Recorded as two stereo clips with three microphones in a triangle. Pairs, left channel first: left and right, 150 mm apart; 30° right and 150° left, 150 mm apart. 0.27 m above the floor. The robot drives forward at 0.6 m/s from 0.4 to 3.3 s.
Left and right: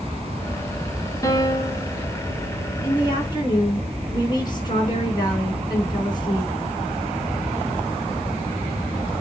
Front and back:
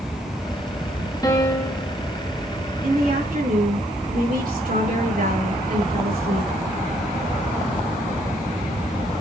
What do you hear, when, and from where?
1.2 s a piano: 30° left, 1.3 m; by 1.9 s 45° left, 1.1 m
2.8 s a woman speaking: 145° left, 3.5 m; by 6.6 s 150° left, 3.5 m